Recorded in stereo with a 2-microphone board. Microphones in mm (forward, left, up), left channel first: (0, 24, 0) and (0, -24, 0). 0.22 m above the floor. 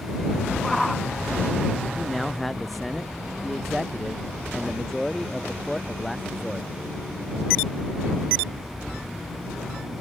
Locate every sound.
0.6 s a shout: 5° left (ahead or behind)
1.9 s a man speaking: 5° left (ahead or behind)